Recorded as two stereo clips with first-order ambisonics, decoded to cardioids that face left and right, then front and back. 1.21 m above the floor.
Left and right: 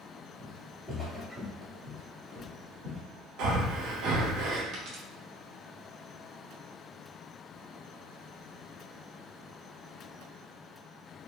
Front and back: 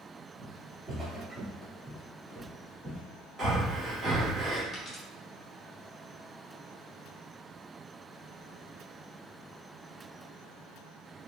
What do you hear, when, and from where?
0.4 s footsteps: 170° left, 1.3 m; by 3.0 s 55° right, 1.4 m
3.4 s breathing: 115° right, 1.3 m
4.7 s a dropped coin: 70° right, 1.1 m